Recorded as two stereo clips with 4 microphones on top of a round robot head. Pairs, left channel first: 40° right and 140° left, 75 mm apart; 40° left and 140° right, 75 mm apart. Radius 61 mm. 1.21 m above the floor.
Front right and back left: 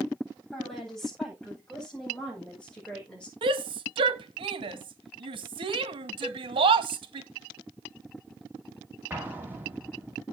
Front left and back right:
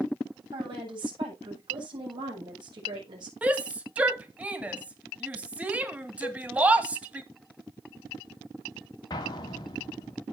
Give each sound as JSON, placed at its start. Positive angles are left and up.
{"t": 0.5, "sound": "a woman speaking", "azimuth_deg": -130, "distance_m": 8.5}
{"t": 3.4, "sound": "a shout", "azimuth_deg": 145, "distance_m": 1.7}
{"t": 6.2, "sound": "a cowbell", "azimuth_deg": 65, "distance_m": 0.6}
{"t": 9.1, "sound": "an explosion", "azimuth_deg": 75, "distance_m": 3.5}